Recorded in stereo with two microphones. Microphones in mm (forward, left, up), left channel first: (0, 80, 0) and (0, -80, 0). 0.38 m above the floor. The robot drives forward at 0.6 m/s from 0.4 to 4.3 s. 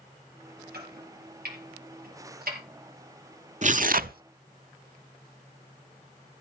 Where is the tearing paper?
50° right (ahead or behind), 0.6 m; by 4.2 s 70° right (ahead or behind), 0.5 m.